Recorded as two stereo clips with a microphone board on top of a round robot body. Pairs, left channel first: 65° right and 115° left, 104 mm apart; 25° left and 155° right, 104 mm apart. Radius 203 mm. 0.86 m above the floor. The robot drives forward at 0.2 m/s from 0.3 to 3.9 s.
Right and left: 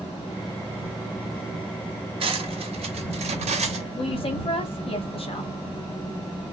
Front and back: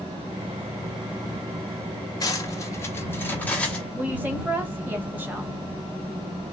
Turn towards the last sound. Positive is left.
turn(degrees=-85)